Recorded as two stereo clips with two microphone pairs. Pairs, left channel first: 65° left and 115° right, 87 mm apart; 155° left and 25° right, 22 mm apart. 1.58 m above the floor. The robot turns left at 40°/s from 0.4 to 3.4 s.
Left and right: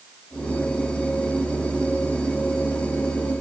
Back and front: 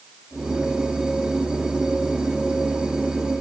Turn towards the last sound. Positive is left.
No sound to turn to.